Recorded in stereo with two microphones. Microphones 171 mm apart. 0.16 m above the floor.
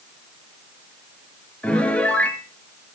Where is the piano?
5° left (ahead or behind), 2 m.